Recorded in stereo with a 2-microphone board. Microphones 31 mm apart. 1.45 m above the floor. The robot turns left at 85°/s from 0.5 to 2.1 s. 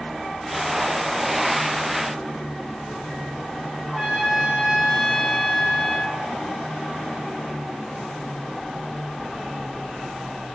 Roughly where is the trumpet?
Centre.